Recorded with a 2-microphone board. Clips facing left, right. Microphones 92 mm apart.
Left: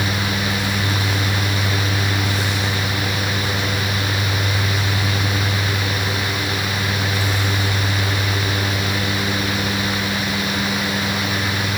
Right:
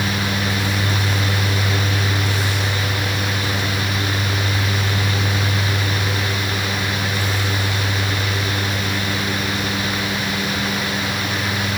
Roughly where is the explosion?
No explosion in this recording.